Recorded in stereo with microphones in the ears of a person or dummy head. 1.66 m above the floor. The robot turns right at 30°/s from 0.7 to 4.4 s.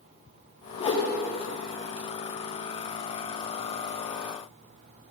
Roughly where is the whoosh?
Left.